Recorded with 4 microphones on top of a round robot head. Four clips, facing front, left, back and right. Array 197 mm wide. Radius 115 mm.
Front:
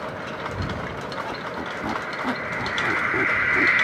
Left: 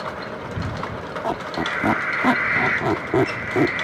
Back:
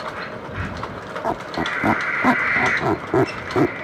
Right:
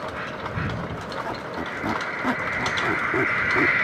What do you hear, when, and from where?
1.2 s a squeak: 145° left